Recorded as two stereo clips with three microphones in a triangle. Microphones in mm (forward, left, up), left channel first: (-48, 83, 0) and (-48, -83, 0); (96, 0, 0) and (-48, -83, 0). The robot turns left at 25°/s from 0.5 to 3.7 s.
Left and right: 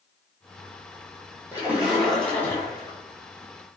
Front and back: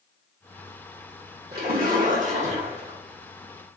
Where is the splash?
170° right, 1.3 m; by 3.0 s 155° left, 1.3 m.